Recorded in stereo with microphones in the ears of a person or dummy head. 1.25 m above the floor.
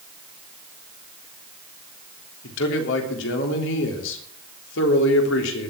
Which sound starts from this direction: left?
A man speaking, at 2.4 s.